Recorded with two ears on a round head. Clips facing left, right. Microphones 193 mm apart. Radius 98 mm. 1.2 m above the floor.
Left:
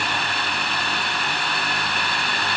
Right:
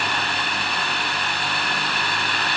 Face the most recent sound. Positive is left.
No sound to turn to.